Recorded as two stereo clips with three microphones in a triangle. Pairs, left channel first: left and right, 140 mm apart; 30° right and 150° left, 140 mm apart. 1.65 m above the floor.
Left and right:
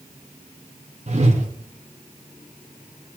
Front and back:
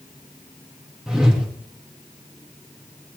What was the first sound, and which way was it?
A whoosh, 125° right.